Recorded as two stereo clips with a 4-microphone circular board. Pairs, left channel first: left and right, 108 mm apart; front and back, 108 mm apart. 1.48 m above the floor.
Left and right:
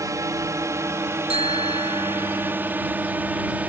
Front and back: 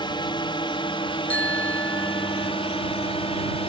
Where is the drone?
35° right; by 3.7 s 15° right.